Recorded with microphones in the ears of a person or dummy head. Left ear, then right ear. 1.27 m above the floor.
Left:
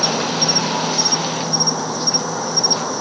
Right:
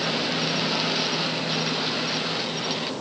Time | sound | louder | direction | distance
0.0 | an insect | left 7 dB | 60° left (ahead or behind) | ?